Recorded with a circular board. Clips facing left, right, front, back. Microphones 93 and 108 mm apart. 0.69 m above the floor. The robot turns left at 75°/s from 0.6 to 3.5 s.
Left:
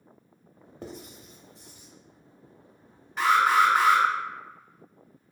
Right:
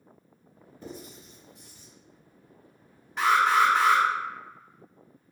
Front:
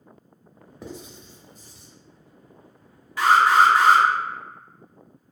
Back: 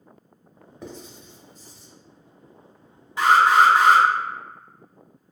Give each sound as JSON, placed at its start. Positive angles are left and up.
{"t": 0.8, "sound": "writing", "azimuth_deg": 90, "distance_m": 0.5}
{"t": 3.2, "sound": "an alarm", "azimuth_deg": 180, "distance_m": 0.8}